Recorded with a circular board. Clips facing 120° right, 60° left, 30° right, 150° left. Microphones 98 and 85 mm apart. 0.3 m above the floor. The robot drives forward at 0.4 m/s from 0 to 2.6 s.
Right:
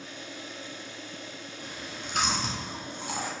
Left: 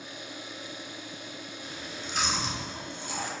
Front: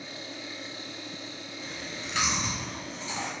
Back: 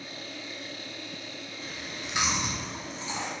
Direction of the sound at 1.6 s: 125° right.